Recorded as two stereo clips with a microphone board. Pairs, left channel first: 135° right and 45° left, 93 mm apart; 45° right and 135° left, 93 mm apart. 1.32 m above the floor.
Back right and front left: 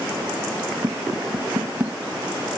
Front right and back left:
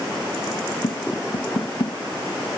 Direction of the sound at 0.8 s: 20° right.